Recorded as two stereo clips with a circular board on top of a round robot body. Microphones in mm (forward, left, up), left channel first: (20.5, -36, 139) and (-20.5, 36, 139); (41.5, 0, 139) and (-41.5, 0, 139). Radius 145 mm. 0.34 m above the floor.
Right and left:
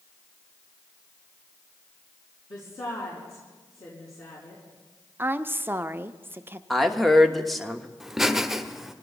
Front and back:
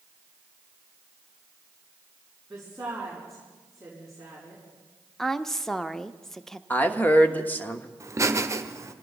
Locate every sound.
2.5 s a woman speaking: 90° right, 5.5 m
5.2 s a woman speaking: 80° left, 0.9 m
6.7 s a woman speaking: 25° left, 1.4 m
8.0 s laughter: 155° right, 1.3 m